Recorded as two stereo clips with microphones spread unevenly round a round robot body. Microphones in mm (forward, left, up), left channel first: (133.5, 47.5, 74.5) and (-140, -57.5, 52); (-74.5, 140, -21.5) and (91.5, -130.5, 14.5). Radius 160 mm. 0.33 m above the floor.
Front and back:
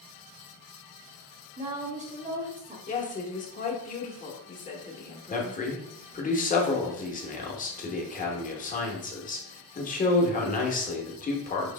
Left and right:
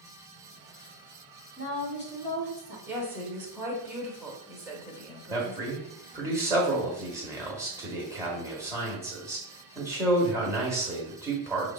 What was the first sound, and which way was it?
A woman speaking, 150° left.